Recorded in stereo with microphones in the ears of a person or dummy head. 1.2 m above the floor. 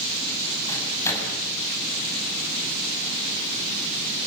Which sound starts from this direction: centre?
A microwave, at 0.7 s.